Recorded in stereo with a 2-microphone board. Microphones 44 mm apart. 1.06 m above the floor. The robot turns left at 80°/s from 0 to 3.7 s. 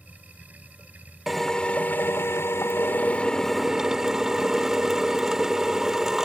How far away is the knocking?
I don't hear knocking.